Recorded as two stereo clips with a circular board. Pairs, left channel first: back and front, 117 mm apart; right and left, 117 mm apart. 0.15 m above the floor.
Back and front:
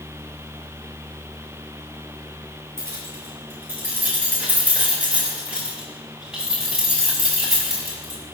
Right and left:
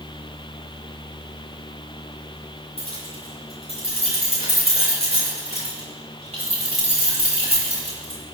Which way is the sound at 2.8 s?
65° left.